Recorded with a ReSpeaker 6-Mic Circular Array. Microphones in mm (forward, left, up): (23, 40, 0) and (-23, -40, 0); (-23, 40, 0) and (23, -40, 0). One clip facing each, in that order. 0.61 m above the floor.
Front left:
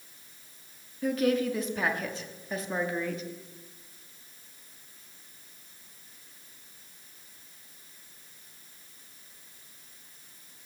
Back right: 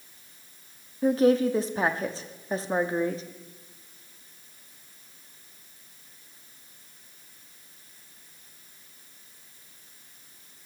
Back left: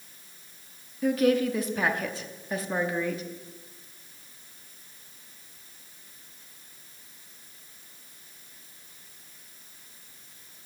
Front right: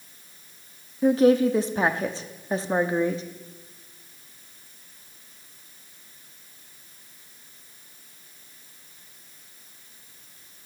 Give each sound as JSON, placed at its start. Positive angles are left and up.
{"t": 1.0, "sound": "a woman speaking", "azimuth_deg": -95, "distance_m": 0.7}